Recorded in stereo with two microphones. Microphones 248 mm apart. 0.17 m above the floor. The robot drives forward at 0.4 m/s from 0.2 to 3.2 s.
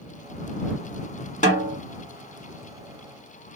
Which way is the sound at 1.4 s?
30° left (ahead or behind).